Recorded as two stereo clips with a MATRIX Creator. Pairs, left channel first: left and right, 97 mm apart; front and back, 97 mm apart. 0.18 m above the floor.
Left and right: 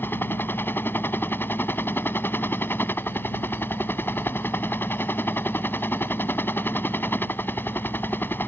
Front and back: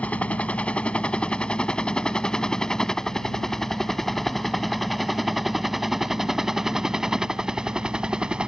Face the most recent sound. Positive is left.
turn(degrees=115)